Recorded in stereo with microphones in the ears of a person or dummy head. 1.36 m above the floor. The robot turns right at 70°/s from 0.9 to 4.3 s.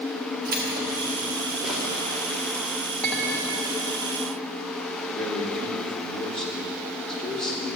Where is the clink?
175° left, 1.0 m; by 3.6 s 145° right, 1.0 m.